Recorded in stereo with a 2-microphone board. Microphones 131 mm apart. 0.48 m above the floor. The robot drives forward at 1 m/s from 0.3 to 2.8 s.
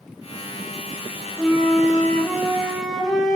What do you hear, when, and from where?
1.4 s a flute: 5° left (ahead or behind), 0.7 m; by 3.4 s centre (ahead or behind), 1.9 m